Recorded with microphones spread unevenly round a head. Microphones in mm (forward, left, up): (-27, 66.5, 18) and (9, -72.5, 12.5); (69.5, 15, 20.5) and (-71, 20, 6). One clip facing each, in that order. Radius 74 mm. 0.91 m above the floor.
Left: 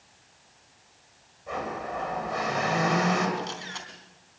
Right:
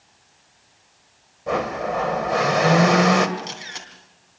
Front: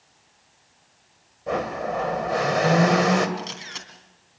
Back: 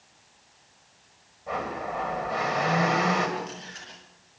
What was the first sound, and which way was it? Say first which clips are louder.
A blender: right 9 dB, front 5 dB; 45° right.